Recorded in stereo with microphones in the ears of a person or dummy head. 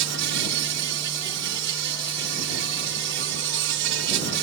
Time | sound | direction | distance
0.0 | an insect | 65° right (ahead or behind) | ?